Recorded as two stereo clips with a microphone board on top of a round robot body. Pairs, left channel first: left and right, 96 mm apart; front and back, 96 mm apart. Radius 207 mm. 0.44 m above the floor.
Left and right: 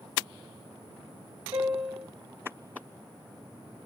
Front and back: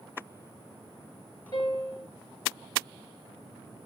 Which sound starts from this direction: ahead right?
A piano, at 1.5 s.